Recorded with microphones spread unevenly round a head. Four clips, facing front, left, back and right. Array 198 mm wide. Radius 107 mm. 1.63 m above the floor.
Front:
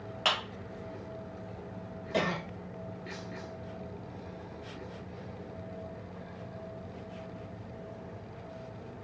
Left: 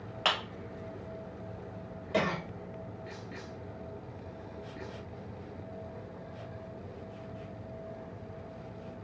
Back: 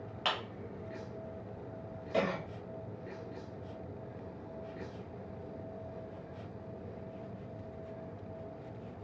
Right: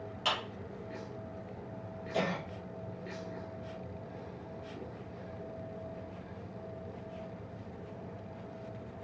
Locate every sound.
0.2 s a clap: 75° left, 2 m
2.1 s a cough: 80° left, 2.5 m